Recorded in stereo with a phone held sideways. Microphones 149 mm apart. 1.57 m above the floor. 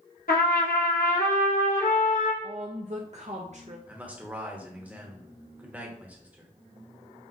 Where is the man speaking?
10° right (ahead or behind), 1.0 m.